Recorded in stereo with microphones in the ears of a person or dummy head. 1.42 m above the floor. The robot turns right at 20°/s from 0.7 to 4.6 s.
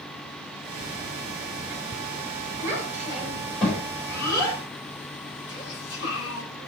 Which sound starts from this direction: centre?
A child speaking, at 2.6 s.